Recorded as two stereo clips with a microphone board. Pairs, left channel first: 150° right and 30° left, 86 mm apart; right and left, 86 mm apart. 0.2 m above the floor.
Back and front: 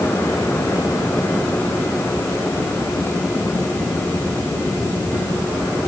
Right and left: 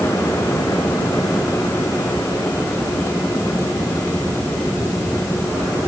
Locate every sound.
Only background noise.